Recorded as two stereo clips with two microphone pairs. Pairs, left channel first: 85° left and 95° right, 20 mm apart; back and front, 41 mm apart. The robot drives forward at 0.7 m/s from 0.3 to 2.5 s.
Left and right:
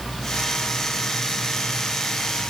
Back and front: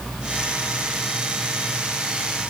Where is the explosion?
I don't hear an explosion.